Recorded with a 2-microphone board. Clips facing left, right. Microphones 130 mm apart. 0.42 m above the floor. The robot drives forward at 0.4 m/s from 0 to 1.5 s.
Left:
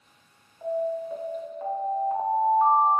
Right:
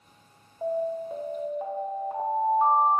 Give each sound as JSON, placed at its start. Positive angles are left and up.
{"t": 0.6, "sound": "an alarm", "side_deg": -30, "distance_m": 0.6}